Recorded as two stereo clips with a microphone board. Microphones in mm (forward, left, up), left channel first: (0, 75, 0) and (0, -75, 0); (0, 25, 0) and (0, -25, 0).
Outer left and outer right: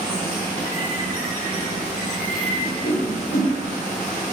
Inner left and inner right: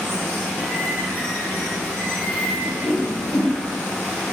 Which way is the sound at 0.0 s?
15° left (ahead or behind).